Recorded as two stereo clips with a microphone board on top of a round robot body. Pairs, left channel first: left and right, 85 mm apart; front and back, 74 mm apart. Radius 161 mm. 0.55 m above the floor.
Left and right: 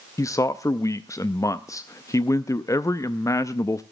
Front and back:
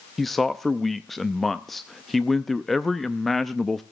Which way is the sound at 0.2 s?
90° left.